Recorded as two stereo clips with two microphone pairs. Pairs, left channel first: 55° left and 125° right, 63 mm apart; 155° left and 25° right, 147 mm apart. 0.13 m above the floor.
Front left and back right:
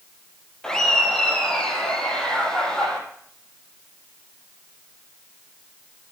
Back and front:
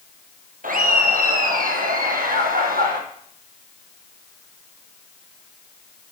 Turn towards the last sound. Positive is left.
turn(degrees=-25)